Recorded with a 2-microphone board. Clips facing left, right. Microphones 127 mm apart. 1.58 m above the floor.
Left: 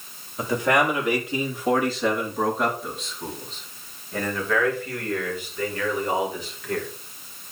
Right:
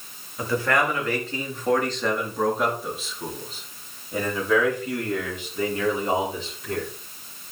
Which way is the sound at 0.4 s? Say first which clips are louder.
Left 2 dB; 20° left (ahead or behind).